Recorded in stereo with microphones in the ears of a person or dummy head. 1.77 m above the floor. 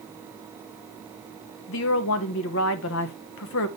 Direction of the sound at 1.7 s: 75° left (ahead or behind).